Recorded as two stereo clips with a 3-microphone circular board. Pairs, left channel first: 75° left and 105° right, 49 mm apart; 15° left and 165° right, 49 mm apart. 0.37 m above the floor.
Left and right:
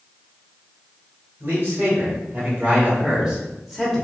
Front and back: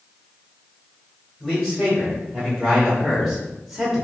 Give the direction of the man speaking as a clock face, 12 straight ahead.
2 o'clock.